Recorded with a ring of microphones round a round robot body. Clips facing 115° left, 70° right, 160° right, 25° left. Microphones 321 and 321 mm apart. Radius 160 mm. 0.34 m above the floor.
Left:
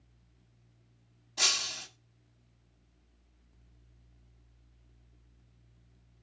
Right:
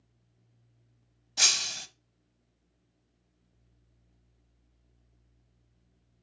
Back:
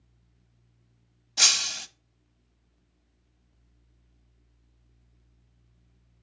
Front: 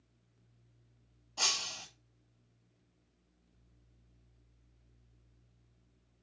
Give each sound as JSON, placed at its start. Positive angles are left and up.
{"t": 1.4, "sound": "breaking glass", "azimuth_deg": -115, "distance_m": 1.2}